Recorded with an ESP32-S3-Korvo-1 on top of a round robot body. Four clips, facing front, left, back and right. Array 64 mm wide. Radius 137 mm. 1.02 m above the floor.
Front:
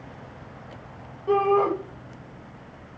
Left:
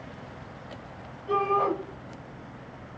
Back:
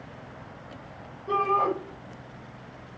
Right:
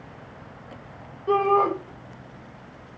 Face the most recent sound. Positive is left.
turn(degrees=-65)